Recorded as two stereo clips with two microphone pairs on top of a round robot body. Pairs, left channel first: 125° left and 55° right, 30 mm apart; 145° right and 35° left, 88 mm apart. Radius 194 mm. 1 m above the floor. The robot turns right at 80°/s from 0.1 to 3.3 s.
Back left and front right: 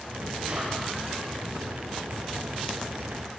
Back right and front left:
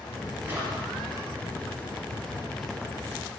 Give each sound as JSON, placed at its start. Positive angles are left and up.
{"t": 0.5, "sound": "a drawer", "azimuth_deg": -30, "distance_m": 6.5}